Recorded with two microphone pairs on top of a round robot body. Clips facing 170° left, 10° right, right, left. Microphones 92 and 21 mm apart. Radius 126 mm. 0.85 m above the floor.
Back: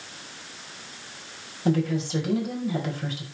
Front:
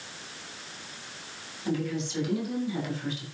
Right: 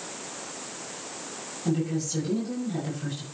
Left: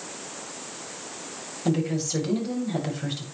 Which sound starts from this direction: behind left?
A woman speaking, at 1.6 s.